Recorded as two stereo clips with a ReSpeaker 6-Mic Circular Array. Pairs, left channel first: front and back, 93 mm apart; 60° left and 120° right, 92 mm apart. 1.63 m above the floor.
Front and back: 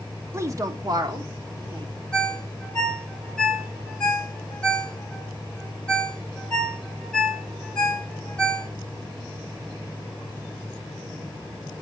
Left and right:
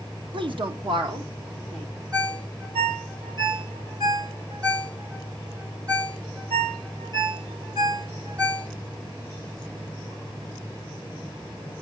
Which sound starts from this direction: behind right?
A woman speaking, at 0.3 s.